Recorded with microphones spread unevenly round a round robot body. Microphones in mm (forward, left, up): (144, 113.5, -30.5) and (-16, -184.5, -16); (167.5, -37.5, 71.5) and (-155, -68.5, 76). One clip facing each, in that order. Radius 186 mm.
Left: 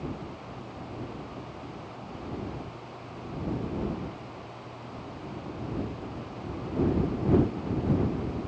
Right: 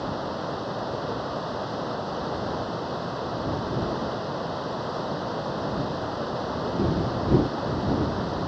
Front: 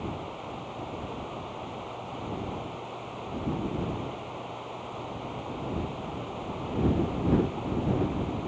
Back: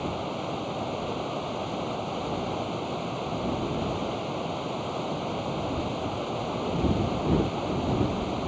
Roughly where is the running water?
Behind right.